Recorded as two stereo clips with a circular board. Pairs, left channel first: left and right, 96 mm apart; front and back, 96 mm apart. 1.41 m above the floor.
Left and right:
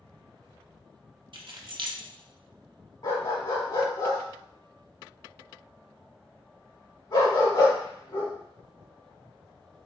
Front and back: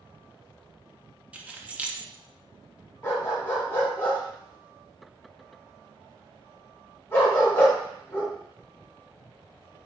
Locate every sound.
1.3 s keys jangling: 105° right, 0.6 m
3.0 s a dog barking: 65° left, 1.9 m